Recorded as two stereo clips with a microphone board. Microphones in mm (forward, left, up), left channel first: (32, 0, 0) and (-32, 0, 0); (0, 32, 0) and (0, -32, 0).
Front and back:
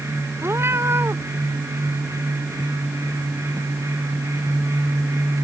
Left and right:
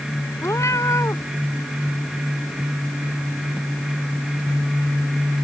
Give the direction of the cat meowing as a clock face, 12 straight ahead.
8 o'clock.